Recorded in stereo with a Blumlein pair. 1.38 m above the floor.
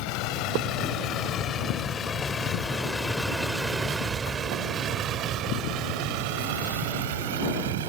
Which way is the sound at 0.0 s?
45° left.